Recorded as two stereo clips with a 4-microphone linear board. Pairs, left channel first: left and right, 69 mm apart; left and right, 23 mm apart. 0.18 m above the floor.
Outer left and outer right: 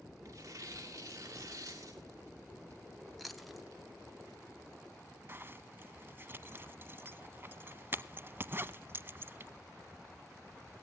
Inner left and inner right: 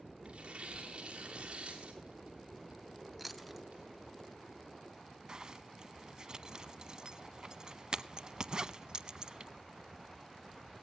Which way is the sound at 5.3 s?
35° right (ahead or behind).